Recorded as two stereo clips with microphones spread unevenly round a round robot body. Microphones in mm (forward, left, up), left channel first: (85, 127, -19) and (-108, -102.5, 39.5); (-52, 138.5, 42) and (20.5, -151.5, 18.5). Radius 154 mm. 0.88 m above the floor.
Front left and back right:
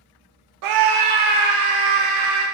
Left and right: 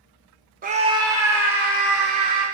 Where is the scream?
130° right, 0.6 m; by 2.5 s 165° right, 3 m.